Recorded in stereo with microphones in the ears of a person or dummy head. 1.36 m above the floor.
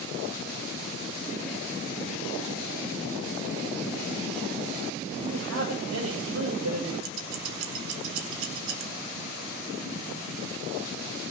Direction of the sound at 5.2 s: 80° right.